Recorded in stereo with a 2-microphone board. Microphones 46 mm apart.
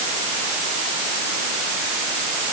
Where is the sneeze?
I don't hear a sneeze.